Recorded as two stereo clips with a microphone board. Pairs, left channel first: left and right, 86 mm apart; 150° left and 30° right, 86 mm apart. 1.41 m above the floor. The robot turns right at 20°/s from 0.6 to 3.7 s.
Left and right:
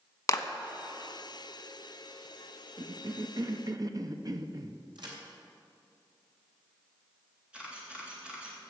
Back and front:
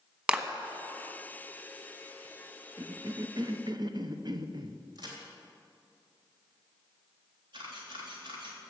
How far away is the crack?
About 3 m.